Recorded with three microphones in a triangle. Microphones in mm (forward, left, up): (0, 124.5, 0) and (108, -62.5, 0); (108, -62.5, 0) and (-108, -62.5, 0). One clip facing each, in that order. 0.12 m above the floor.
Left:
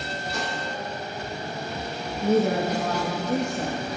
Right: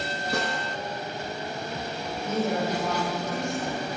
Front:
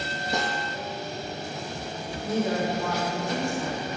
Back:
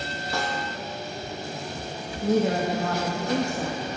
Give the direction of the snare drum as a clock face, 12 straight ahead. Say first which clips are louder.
Right 3 dB, even; 2 o'clock.